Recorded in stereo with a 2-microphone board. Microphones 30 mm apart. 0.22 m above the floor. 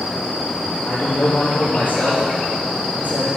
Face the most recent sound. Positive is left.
turn(degrees=70)  # may be behind; listen again after turning